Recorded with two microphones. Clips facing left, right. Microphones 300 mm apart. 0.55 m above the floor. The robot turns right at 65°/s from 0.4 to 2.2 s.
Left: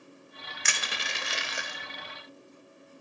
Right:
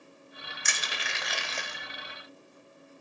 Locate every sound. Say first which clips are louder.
0.7 s crushing: left 1 dB; 70° left (ahead or behind), 0.8 m; by 1.8 s centre (ahead or behind), 0.8 m